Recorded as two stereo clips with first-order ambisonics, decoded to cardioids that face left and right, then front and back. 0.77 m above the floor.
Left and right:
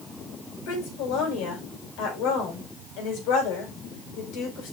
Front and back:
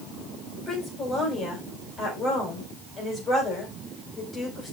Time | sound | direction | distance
0.7 | a woman speaking | 70° left | 5 m